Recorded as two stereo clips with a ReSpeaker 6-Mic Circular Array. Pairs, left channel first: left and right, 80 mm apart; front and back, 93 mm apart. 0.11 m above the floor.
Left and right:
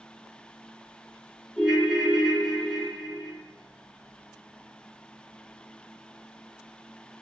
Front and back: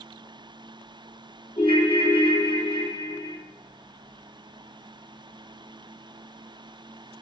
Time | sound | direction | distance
1.6 | a ringtone | straight ahead | 1.5 m